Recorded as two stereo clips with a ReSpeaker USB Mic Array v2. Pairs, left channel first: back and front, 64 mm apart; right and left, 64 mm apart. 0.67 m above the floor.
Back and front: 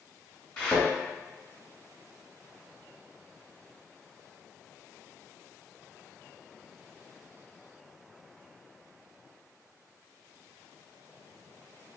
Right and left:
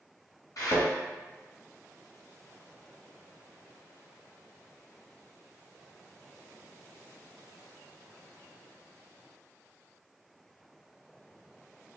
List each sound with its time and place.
0.6 s a thud: 100° right, 1.1 m